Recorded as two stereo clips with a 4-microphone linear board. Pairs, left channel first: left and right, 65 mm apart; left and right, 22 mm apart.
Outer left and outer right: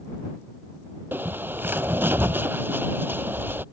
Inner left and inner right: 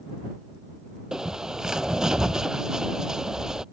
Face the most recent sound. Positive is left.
turn(degrees=-35)  # may be behind; listen again after turning